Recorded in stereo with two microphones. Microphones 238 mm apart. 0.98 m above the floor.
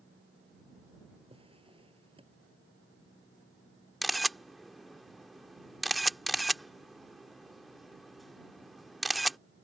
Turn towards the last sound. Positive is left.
turn(degrees=0)  # may be behind; listen again after turning